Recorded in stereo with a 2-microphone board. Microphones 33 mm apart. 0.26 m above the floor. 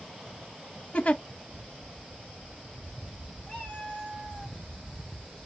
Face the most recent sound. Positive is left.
turn(degrees=45)  # may be behind; listen again after turning